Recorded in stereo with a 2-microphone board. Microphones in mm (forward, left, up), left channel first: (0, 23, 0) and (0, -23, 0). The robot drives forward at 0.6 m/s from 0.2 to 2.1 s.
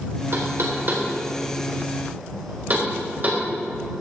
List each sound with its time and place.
0.3 s knocking: 55° right (ahead or behind), 2 m; by 3.4 s 40° right (ahead or behind), 3 m